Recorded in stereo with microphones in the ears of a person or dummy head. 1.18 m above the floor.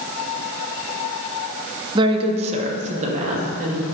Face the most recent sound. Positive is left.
turn(degrees=-45)  # may be behind; listen again after turning